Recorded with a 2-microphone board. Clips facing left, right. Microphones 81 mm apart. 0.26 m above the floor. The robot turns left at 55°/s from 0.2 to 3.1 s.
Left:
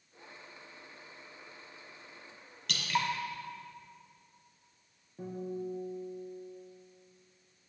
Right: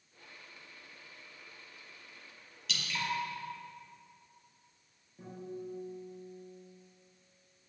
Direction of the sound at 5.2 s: 35° left (ahead or behind).